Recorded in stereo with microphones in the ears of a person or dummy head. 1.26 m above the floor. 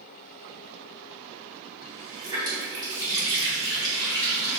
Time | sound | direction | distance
1.8 | a running tap | 20° right (ahead or behind) | 2 m